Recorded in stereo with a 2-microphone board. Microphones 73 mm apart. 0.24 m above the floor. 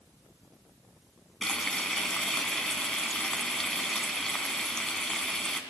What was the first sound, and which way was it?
Frying, 10° left (ahead or behind).